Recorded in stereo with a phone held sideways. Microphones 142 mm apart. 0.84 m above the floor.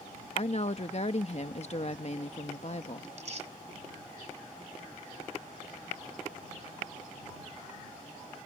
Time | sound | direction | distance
0.3 | a woman speaking | 50° left (ahead or behind) | ?
3.0 | tearing paper | 55° right (ahead or behind) | ?